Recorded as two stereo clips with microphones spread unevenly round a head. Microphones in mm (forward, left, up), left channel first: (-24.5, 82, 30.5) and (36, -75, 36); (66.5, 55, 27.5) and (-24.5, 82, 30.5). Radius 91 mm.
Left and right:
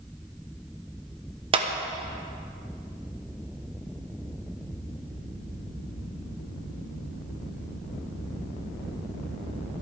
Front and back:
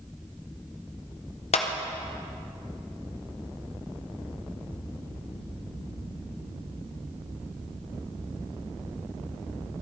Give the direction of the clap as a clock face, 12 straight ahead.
12 o'clock.